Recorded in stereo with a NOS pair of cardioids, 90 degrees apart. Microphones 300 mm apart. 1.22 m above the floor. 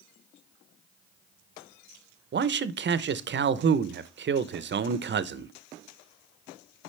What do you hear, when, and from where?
2.3 s a man speaking: 40° right, 0.7 m